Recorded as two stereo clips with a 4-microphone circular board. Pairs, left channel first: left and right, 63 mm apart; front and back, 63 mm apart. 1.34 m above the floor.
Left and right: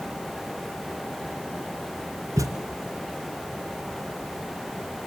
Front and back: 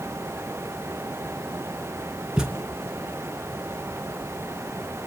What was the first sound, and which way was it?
A thud, 100° right.